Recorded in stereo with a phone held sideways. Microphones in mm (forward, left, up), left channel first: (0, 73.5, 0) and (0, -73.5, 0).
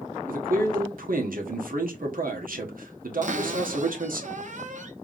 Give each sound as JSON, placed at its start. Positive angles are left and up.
{"t": 0.3, "sound": "a man speaking", "side_deg": -85, "distance_m": 1.4}
{"t": 3.2, "sound": "a cupboard door", "side_deg": -65, "distance_m": 0.8}